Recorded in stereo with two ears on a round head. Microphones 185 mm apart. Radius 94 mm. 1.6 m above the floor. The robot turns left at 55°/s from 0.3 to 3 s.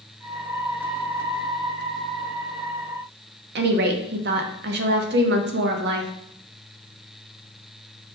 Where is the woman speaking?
50° right (ahead or behind), 0.6 m.